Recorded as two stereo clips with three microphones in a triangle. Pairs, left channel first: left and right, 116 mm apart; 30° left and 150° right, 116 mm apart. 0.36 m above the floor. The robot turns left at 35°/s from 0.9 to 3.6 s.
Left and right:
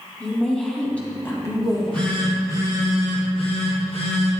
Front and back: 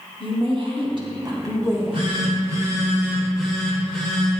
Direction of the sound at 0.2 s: 170° left.